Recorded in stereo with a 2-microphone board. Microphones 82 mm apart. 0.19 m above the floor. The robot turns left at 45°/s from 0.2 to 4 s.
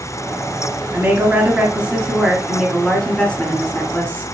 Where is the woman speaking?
20° right (ahead or behind), 1.2 m; by 4.2 s 20° left (ahead or behind), 1.2 m.